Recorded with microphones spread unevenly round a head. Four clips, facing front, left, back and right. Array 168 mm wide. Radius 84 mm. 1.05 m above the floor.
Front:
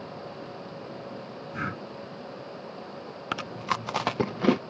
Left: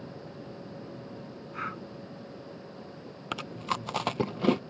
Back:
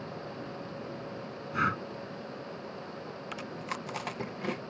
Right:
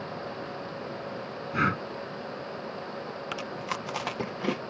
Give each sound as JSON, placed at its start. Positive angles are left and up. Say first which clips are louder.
{"t": 1.5, "sound": "breathing", "louder": "right 10 dB, back 4 dB", "azimuth_deg": -90}
{"t": 3.3, "sound": "chewing", "louder": "left 3 dB, front 10 dB", "azimuth_deg": 25}